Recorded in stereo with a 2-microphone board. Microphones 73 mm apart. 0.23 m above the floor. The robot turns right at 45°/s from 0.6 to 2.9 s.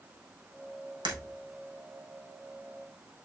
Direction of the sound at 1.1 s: 85° right.